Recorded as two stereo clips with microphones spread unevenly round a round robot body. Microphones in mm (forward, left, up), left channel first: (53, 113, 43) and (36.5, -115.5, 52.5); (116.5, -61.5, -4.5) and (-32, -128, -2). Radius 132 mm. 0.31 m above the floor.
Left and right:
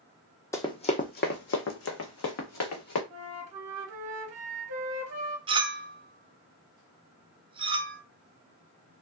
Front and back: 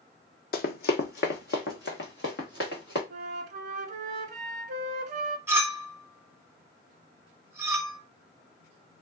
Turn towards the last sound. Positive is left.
turn(degrees=-110)